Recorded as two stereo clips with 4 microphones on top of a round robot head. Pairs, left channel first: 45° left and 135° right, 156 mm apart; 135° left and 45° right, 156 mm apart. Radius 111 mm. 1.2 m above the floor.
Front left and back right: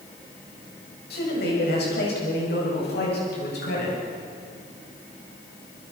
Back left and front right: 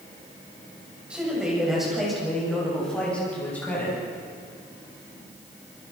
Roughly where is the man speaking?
Ahead left.